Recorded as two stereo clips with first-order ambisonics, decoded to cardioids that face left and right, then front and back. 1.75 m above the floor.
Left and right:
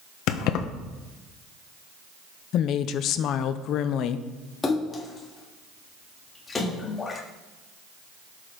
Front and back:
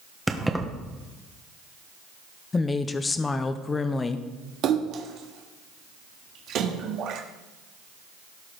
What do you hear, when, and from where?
0.3 s keys jangling: 95° left, 1.0 m
2.5 s a woman speaking: 70° left, 0.6 m
4.6 s a splash: 160° left, 1.5 m